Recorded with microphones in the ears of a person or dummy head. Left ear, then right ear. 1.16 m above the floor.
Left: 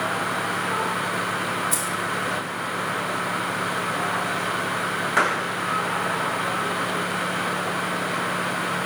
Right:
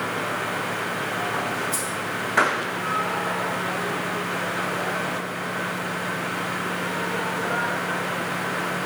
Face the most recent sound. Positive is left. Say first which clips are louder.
# left 2 dB
turn(degrees=60)  # may be behind; listen again after turning